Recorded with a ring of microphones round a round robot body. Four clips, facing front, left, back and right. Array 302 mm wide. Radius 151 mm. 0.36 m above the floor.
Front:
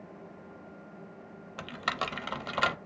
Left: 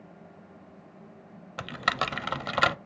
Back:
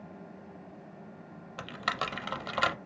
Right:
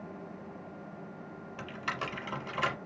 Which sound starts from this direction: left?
Typing on a keyboard, at 1.6 s.